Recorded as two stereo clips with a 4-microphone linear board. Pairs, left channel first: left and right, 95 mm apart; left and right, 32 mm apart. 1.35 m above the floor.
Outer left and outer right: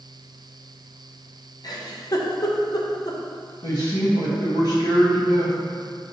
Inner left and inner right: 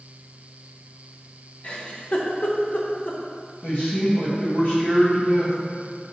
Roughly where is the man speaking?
Left.